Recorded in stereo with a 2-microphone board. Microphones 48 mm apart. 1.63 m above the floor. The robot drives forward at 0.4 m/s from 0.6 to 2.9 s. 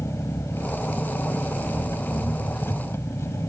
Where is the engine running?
80° left; by 3.5 s 70° left (ahead or behind).